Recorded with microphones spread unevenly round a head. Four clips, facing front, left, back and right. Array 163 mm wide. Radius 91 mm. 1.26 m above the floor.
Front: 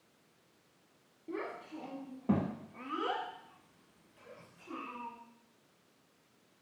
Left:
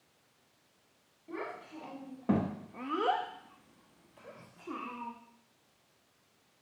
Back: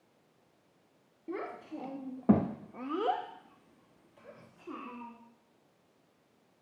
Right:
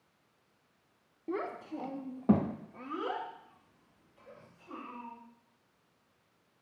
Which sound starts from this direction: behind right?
A child speaking, at 1.3 s.